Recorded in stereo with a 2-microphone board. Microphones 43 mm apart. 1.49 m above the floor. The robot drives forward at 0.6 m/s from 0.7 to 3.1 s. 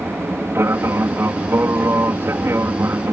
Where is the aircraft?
60° right (ahead or behind); by 3.1 s 65° right (ahead or behind).